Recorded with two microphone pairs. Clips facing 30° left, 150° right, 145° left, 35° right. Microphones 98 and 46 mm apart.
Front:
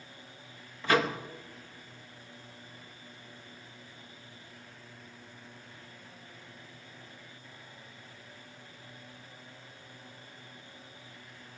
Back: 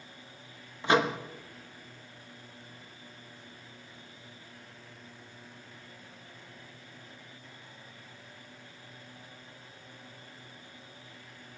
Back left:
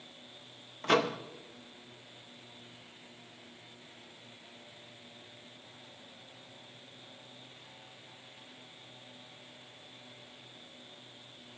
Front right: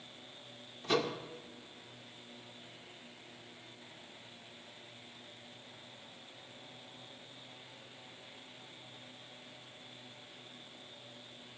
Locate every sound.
0.8 s a microwave: 140° left, 0.7 m